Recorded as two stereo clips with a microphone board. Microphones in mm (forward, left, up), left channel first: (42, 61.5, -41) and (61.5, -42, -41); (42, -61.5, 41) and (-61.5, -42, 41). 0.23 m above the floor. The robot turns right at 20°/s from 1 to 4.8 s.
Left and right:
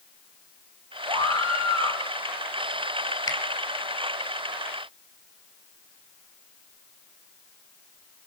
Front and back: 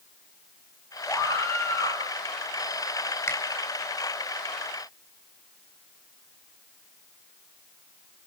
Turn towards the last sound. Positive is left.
turn(degrees=80)